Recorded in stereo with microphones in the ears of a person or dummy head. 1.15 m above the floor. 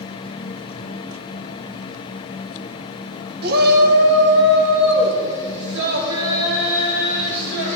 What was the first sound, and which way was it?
A shout, 50° right (ahead or behind).